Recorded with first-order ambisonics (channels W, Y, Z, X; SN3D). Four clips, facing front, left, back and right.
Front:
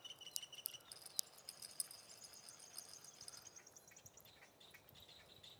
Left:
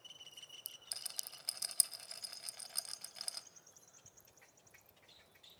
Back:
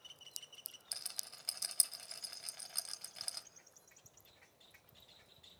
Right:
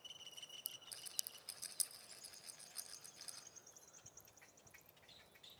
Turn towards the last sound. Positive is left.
turn(degrees=135)